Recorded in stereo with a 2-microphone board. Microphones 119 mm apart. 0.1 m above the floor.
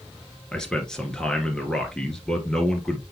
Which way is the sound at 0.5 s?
5° left (ahead or behind).